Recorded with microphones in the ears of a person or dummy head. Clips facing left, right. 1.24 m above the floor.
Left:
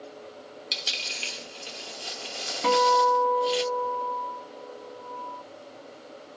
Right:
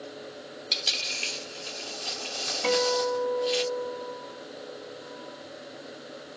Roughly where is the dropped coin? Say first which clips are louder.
Right 2 dB; centre.